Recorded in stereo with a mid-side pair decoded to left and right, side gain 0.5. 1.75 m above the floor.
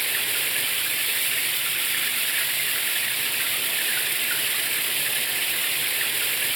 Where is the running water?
10° right.